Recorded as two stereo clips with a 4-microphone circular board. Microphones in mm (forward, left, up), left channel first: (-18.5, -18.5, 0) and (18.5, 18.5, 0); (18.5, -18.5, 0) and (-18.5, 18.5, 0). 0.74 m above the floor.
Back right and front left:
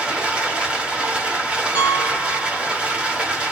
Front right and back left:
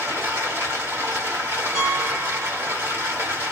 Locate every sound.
0.0 s running water: 110° left, 1.2 m
1.8 s a piano: 45° left, 0.8 m